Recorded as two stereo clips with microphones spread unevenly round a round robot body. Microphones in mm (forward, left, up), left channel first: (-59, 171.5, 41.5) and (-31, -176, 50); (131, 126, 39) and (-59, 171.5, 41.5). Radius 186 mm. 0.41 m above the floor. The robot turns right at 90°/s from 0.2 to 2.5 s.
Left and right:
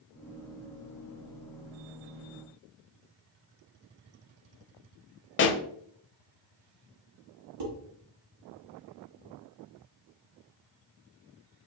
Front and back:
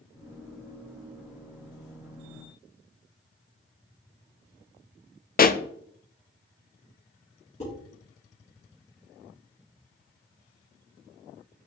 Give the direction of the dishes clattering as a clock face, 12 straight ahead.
3 o'clock.